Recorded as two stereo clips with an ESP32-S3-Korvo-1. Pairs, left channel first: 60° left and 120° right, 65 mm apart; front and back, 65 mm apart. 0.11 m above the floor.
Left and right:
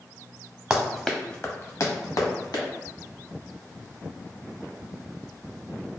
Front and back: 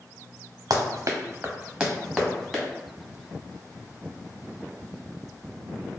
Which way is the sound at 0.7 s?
170° left.